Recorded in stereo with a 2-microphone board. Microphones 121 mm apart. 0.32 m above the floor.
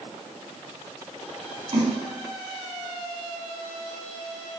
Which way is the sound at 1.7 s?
60° right (ahead or behind).